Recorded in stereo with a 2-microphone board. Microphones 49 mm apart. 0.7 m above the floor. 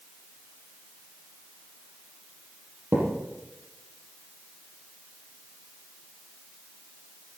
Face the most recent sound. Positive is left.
turn(degrees=-55)  # may be behind; listen again after turning